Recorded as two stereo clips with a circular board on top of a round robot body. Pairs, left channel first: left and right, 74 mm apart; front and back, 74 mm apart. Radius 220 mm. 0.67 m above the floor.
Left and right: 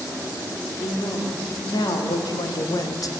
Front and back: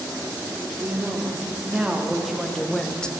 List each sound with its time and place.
0.8 s a woman speaking: 105° left, 3 m; by 3.1 s 75° left, 1.2 m